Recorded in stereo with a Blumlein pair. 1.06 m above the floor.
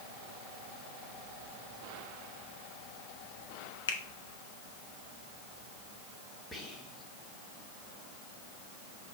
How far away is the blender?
No blender in this recording.